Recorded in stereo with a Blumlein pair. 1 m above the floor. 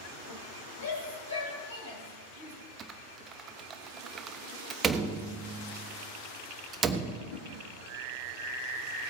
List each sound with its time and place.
0.8 s a shout: 65° left, 6.5 m; by 2.5 s 75° left, 6.5 m
2.8 s typing on a keyboard: 20° right, 0.9 m
4.8 s a door slam: 20° right, 1.0 m
7.3 s a whoosh: 50° left, 2 m